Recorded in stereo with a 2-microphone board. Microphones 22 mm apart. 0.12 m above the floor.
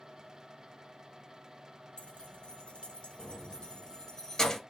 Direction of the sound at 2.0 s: 60° left (ahead or behind).